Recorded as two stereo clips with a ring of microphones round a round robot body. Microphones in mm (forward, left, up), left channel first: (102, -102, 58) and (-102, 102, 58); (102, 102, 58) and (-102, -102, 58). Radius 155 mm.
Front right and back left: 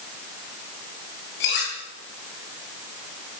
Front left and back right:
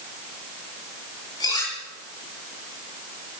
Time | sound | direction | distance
1.4 | cutlery clinking | 30° right | 9 m